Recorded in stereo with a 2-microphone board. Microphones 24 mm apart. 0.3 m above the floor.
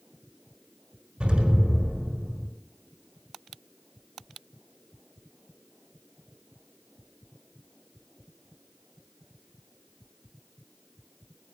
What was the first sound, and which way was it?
An explosion, 50° right (ahead or behind).